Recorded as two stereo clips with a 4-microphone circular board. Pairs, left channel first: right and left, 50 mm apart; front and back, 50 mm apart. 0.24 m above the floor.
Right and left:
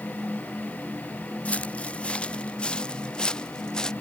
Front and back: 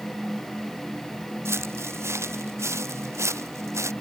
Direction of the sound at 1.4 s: 155° right.